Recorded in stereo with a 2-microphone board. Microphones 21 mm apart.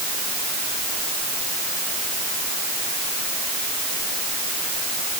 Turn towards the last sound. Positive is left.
No sound to turn to.